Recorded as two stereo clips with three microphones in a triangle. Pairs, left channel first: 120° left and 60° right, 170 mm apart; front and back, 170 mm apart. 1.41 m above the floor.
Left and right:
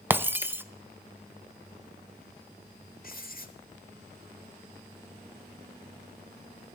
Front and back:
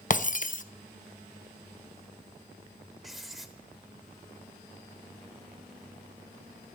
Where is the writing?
90° left, 1.8 m.